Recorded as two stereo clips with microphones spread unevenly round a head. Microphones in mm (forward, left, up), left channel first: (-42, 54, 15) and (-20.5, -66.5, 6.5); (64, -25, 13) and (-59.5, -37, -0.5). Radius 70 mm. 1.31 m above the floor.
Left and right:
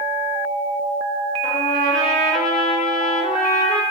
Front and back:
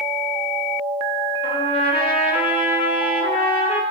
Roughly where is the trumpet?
Ahead left.